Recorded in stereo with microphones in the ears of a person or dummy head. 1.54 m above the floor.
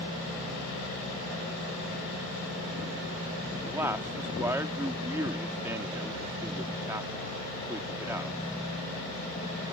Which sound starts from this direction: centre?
A man speaking, at 3.6 s.